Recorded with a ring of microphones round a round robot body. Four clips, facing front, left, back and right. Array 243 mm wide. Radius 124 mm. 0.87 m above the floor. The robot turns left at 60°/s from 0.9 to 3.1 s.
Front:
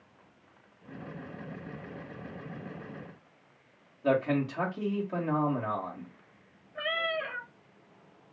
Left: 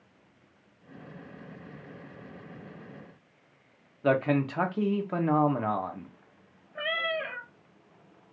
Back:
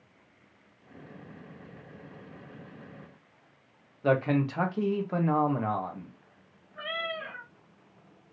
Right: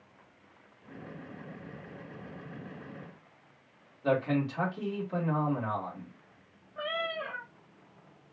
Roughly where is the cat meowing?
Ahead left.